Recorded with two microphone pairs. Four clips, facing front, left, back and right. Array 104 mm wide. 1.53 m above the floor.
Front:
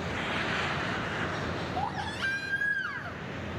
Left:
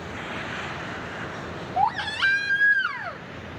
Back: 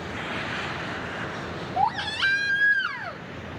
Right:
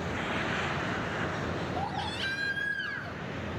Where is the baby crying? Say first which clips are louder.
Left 10 dB, back 12 dB; 110° left, 3 m.